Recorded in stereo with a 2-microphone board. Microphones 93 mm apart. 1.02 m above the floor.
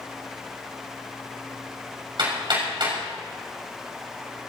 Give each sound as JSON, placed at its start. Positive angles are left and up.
{"t": 2.2, "sound": "hammering", "side_deg": -60, "distance_m": 6.0}